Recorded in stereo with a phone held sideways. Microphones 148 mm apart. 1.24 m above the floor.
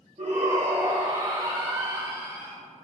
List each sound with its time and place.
0.2 s a shout: 55° right (ahead or behind), 1.9 m; by 2.5 s 25° right (ahead or behind), 2.5 m